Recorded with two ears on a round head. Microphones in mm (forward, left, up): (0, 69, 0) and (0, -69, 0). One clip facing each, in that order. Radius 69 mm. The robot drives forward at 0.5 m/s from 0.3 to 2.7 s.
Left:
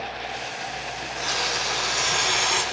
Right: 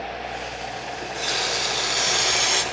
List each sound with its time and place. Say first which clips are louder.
1.0 s a running tap: right 1 dB; 35° right (ahead or behind), 3.5 m; by 2.6 s 45° right (ahead or behind), 2.5 m